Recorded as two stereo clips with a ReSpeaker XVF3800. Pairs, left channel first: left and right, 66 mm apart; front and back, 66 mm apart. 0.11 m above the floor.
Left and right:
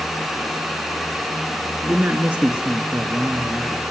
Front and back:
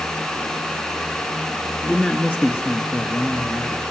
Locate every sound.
1.8 s a man speaking: 70° right, 1.7 m; by 3.8 s 5° right, 2.5 m